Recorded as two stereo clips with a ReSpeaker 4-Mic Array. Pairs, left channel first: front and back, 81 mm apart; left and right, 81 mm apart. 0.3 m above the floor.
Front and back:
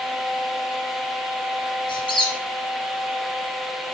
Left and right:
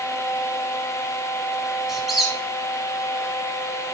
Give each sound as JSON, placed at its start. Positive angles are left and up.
{"t": 1.9, "sound": "a squeak", "azimuth_deg": -5, "distance_m": 1.5}